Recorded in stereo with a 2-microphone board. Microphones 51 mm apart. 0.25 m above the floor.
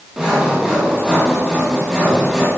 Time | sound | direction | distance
0.2 | sawing | 10° right (ahead or behind) | 8 m